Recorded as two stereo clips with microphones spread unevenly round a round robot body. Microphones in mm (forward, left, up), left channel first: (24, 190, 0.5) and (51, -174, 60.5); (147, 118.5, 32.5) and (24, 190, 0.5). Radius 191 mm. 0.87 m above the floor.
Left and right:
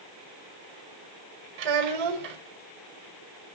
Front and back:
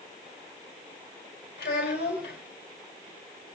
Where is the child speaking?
80° right, 3.5 m.